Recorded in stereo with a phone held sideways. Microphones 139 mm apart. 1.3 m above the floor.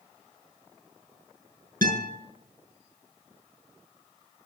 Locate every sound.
1.8 s a guitar: 80° right, 7.5 m